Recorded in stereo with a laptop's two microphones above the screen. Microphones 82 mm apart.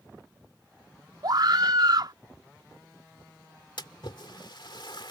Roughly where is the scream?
Right.